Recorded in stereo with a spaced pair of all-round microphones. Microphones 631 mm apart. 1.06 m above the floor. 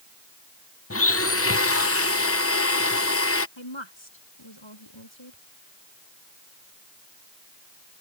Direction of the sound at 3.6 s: 45° left (ahead or behind).